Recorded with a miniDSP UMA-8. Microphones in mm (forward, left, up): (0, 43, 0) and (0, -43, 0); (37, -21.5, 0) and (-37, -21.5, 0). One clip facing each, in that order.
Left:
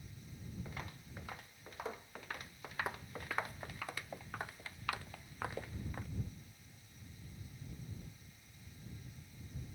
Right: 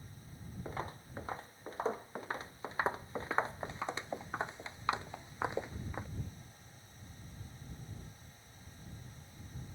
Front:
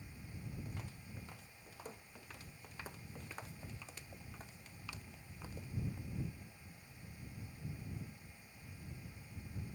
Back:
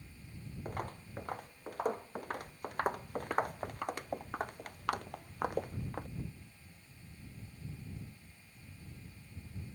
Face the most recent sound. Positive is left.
turn(degrees=-160)